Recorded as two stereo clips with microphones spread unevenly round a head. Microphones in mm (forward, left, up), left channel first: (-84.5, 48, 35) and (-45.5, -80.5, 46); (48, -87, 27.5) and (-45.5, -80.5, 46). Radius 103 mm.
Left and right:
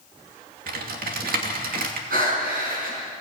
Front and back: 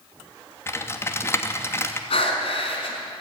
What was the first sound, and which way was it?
Typing on a keyboard, 65° right.